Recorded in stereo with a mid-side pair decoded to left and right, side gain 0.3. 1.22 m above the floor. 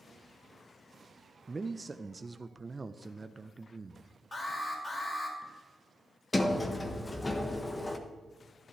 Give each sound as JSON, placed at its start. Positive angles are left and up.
{"t": 1.5, "sound": "a man speaking", "azimuth_deg": -35, "distance_m": 0.6}
{"t": 4.3, "sound": "an alarm", "azimuth_deg": 40, "distance_m": 4.5}
{"t": 6.3, "sound": "a sliding door", "azimuth_deg": 30, "distance_m": 1.2}